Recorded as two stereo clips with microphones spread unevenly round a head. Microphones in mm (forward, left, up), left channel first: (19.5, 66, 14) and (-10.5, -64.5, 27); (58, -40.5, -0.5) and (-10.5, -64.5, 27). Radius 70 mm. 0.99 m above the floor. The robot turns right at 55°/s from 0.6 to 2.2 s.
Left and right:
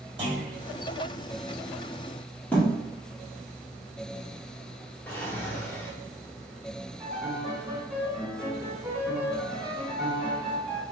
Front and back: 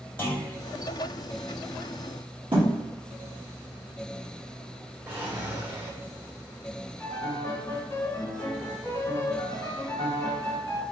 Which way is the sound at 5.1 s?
155° left.